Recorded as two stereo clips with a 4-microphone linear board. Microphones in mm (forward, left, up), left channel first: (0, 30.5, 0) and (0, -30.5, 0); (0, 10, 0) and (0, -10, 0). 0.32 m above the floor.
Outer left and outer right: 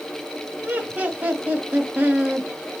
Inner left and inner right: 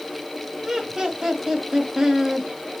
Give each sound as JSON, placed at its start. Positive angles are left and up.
{"t": 0.6, "sound": "laughter", "side_deg": -25, "distance_m": 1.0}